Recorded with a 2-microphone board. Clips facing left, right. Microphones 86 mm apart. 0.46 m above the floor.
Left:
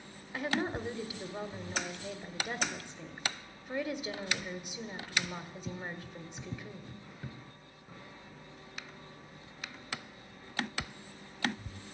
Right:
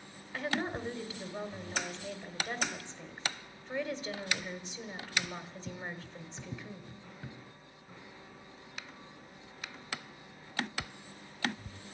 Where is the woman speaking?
10° left (ahead or behind), 1.5 m.